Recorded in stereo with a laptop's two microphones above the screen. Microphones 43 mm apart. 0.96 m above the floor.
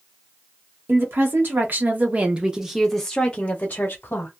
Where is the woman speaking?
60° right (ahead or behind), 1.2 m; by 4.3 s 50° left (ahead or behind), 1.0 m.